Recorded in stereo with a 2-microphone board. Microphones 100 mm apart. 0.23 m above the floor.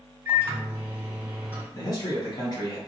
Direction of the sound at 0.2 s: 20° right (ahead or behind).